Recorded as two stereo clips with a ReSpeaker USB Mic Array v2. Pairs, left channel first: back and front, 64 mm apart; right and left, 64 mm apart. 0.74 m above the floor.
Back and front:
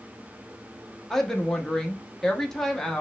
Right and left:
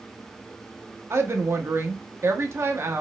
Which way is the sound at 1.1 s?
100° left.